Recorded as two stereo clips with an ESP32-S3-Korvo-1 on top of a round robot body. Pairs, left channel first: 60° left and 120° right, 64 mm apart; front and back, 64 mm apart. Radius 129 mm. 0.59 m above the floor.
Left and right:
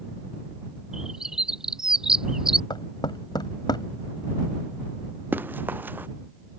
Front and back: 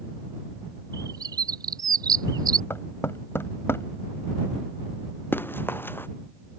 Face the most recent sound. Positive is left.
turn(degrees=-55)